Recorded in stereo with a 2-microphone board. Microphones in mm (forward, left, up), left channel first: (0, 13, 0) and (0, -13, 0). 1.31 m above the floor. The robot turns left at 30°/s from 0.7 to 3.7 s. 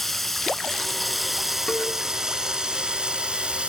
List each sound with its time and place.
0.0 s running water: 10° left, 1.5 m; by 3.7 s 80° right, 1.5 m
1.7 s a cowbell: 35° left (ahead or behind), 2.5 m; by 1.9 s 30° left (ahead or behind), 2.5 m